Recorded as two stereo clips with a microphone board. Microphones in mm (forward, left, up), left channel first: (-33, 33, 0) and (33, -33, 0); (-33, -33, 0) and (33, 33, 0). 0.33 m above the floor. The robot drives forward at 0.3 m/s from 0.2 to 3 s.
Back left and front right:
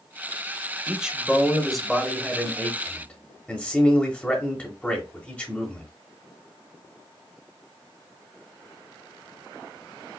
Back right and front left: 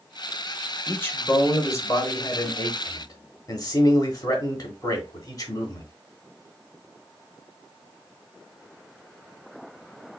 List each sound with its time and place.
0.9 s a man speaking: 110° right, 0.9 m; by 5.9 s 155° right, 1.1 m